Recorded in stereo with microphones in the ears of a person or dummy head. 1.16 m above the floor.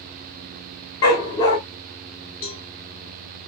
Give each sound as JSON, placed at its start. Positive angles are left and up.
{"t": 1.0, "sound": "a dog barking", "side_deg": 20, "distance_m": 0.8}
{"t": 2.4, "sound": "a cowbell", "side_deg": 40, "distance_m": 0.9}